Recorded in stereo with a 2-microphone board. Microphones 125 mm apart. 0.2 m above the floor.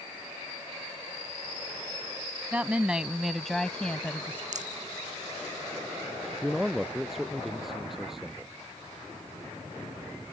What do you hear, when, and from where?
2.5 s a woman speaking: 10° right (ahead or behind); by 4.4 s 15° left (ahead or behind)
4.5 s a rattle: 70° right (ahead or behind)
6.4 s a man speaking: centre (ahead or behind)